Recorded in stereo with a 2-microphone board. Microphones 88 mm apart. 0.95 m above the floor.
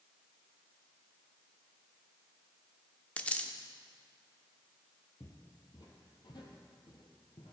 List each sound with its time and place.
3.2 s a dropped coin: 15° left (ahead or behind), 0.6 m
5.2 s footsteps: 40° left (ahead or behind), 1.3 m; by 7.5 s 70° left (ahead or behind), 2.5 m